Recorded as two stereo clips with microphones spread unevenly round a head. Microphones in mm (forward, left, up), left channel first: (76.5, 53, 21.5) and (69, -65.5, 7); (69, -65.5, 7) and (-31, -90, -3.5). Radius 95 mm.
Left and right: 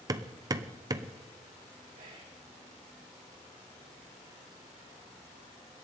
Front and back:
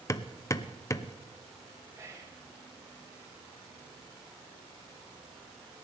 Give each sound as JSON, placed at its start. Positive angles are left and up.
{"t": 0.1, "sound": "hammering", "azimuth_deg": -35, "distance_m": 0.9}
{"t": 1.9, "sound": "whispering", "azimuth_deg": -110, "distance_m": 4.0}